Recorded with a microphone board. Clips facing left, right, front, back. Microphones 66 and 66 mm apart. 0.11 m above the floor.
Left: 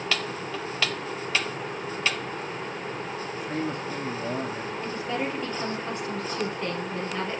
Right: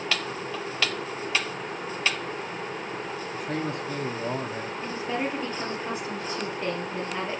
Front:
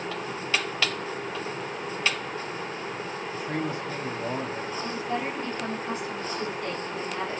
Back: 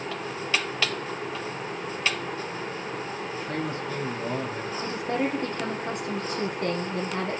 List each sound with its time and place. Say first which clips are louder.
3.3 s a man speaking: even, front 1 dB; 75° right, 5.5 m; by 4.7 s 65° right, 5.5 m
4.8 s a woman speaking: right 1 dB, back 4 dB; 165° right, 2.5 m